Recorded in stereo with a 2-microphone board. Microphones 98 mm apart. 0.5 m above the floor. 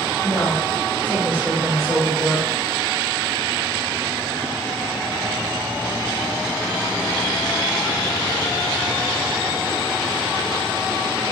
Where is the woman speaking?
15° left (ahead or behind), 2.5 m; by 2.5 s 5° left (ahead or behind), 1.6 m.